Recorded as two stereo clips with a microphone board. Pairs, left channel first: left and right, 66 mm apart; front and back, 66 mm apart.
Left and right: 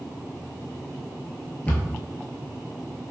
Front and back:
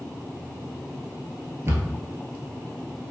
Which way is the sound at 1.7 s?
150° left.